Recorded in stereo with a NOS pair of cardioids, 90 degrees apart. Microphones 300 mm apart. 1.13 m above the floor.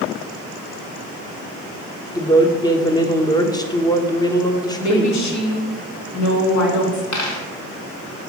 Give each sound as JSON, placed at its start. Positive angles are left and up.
{"t": 2.1, "sound": "a woman speaking", "azimuth_deg": 15, "distance_m": 0.9}
{"t": 4.8, "sound": "a woman speaking", "azimuth_deg": 65, "distance_m": 2.0}
{"t": 7.1, "sound": "a dropped coin", "azimuth_deg": 70, "distance_m": 1.8}